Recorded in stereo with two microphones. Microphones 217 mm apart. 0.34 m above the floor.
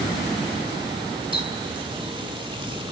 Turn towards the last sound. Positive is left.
turn(degrees=-25)  # may be behind; listen again after turning